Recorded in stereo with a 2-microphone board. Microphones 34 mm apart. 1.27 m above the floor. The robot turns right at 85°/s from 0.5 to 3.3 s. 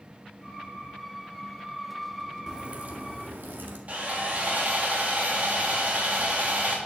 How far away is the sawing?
About 3 m.